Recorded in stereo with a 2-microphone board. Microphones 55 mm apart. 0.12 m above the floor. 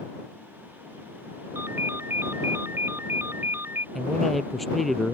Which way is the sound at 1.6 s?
45° right (ahead or behind).